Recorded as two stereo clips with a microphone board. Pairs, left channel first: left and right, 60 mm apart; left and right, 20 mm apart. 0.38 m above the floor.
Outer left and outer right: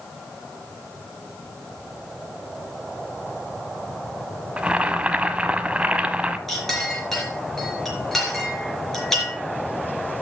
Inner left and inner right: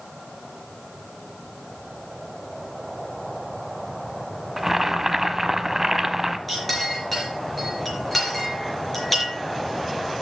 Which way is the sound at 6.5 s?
5° left (ahead or behind).